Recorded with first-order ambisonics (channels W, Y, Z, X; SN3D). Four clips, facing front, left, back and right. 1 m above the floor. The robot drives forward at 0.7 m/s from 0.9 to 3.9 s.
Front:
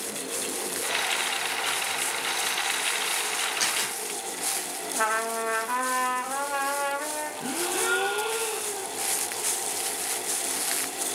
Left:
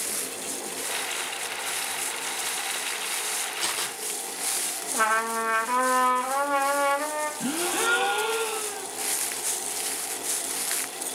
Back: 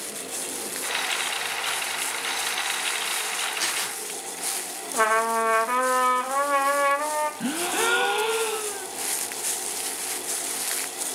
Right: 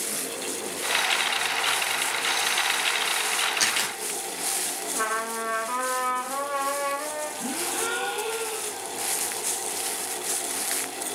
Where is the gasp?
165° left, 1.6 m.